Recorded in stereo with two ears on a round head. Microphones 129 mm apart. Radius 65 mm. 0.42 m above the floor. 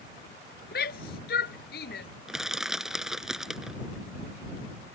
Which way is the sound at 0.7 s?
75° left (ahead or behind).